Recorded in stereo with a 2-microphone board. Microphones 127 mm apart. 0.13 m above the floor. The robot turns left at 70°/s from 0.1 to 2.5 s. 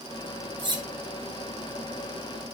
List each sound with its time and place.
0.6 s cutlery clinking: 35° right (ahead or behind), 1.1 m; by 0.8 s 40° right (ahead or behind), 1.1 m